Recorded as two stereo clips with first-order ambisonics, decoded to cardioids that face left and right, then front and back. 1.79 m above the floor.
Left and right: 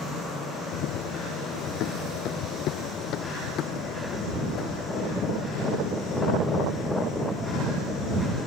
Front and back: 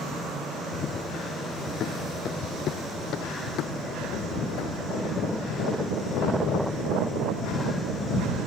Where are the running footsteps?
65° left; by 8.4 s 10° left.